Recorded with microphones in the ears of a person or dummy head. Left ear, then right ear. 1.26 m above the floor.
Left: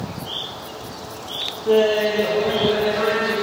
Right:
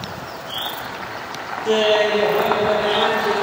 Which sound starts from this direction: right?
Laughter, at 1.6 s.